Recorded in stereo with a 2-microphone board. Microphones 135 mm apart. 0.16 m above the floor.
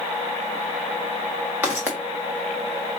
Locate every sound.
1.6 s footsteps: 15° right (ahead or behind), 1.3 m